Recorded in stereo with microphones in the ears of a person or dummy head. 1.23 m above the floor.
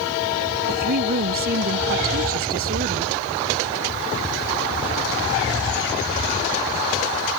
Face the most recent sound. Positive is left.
turn(degrees=-50)  # may be behind; listen again after turning